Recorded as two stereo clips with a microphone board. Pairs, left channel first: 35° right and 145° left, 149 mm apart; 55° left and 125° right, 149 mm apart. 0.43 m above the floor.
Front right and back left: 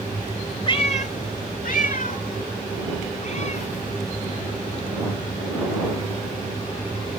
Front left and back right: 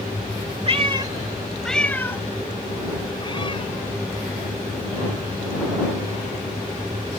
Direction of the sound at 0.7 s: 85° right.